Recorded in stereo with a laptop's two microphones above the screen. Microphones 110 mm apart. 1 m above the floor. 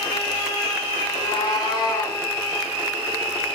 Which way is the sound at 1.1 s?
45° left (ahead or behind).